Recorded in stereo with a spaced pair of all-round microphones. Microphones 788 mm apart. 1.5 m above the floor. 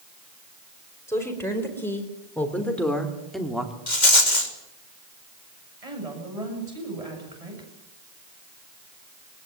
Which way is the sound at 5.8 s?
45° right (ahead or behind).